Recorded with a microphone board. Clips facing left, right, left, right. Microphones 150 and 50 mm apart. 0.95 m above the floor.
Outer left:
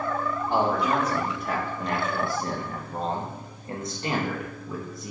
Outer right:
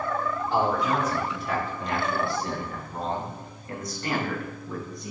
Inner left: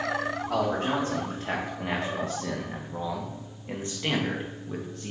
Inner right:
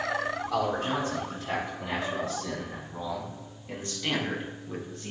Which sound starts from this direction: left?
A man speaking, at 0.5 s.